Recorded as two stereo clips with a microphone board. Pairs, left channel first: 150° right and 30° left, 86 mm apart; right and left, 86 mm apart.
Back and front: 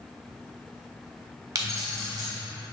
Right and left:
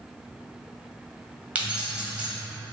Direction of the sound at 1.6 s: 25° left.